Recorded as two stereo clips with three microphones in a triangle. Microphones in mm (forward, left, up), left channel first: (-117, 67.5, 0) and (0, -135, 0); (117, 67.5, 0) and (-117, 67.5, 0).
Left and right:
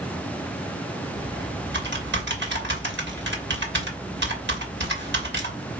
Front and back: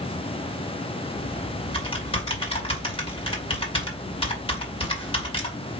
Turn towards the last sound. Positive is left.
turn(degrees=-60)